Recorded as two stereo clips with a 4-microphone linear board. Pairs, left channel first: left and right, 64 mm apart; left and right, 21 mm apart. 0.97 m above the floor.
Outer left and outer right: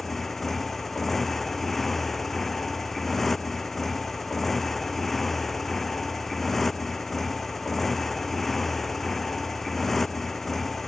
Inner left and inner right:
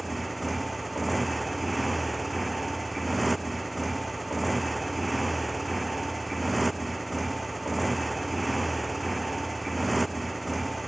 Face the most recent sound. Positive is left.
turn(degrees=5)  # may be behind; listen again after turning